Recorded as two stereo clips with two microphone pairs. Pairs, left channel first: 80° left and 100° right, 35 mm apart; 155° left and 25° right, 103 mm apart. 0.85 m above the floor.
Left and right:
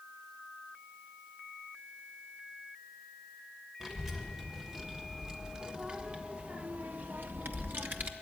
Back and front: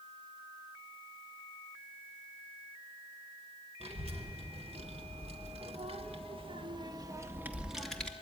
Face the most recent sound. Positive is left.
turn(degrees=-125)